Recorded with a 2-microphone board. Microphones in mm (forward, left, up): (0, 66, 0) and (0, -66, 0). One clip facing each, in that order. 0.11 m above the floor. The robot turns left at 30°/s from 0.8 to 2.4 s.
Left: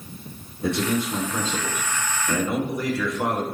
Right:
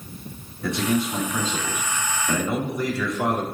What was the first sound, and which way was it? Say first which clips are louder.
A man speaking: even; 20° left (ahead or behind).